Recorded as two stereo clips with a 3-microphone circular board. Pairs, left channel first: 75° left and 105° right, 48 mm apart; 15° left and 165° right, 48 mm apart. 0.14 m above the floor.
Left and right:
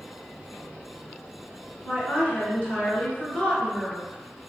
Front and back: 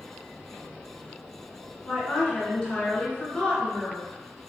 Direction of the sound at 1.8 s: 60° left.